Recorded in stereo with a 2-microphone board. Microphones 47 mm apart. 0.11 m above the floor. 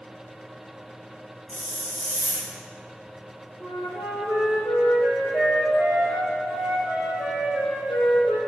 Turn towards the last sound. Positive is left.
turn(degrees=75)  # may be behind; listen again after turning